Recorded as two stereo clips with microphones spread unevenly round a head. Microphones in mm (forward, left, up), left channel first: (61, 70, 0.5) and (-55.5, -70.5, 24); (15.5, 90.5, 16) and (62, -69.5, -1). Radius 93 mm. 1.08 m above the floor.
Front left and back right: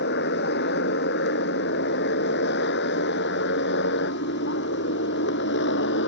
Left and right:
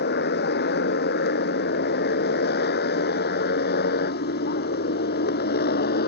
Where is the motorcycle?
85° left; by 6.1 s 80° left.